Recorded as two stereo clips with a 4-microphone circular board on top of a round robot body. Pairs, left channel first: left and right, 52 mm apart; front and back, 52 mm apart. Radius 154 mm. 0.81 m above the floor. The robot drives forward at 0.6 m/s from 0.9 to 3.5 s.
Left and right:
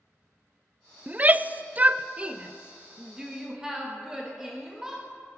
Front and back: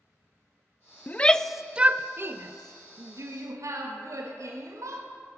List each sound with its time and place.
1.1 s a shout: 40° right, 0.6 m; by 5.0 s 170° right, 1.3 m